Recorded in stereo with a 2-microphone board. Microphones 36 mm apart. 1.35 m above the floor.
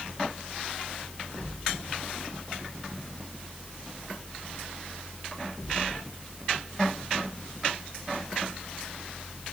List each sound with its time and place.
Only background noise.